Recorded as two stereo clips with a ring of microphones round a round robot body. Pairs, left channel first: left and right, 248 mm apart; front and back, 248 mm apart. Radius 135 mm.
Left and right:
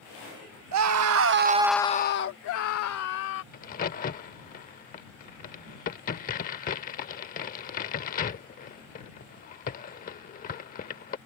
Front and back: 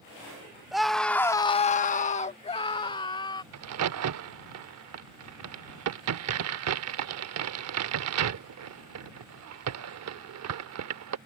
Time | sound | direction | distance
0.7 | a scream | 90° right | ?
3.5 | a crack | 155° left | ?